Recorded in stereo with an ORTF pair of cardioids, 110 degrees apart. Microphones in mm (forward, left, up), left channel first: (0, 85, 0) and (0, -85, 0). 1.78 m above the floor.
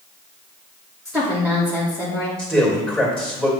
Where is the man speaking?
5° left, 3 m.